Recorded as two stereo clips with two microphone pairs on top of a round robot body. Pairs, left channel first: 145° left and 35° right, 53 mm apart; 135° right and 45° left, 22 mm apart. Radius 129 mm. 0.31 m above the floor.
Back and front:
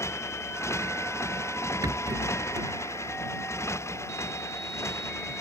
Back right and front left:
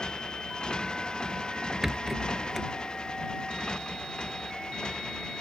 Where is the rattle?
35° right.